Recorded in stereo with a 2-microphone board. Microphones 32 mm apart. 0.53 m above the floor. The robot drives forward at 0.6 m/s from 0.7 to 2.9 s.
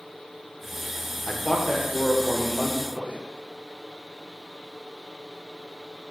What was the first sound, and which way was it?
A man speaking, 30° left (ahead or behind).